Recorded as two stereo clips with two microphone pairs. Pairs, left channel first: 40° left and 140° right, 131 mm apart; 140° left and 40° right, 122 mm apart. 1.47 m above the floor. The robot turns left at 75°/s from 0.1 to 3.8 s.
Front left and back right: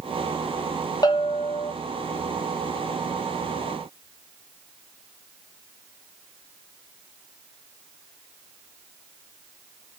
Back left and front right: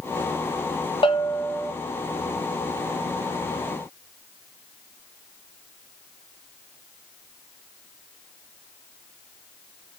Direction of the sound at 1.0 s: 95° left.